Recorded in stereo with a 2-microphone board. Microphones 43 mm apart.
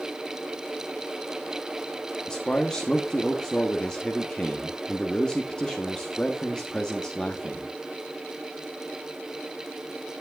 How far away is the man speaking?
About 1.2 m.